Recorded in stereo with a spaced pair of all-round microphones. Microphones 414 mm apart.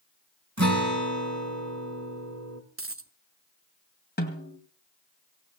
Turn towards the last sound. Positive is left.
turn(degrees=20)  # may be behind; listen again after turning